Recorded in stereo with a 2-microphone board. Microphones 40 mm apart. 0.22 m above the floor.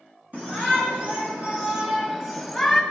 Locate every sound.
0.3 s a shout: 45° right (ahead or behind), 2.5 m; by 2.8 s 5° left (ahead or behind), 1.6 m